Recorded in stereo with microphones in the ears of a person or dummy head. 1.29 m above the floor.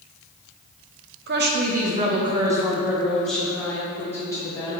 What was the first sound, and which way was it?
A woman speaking, 55° right (ahead or behind).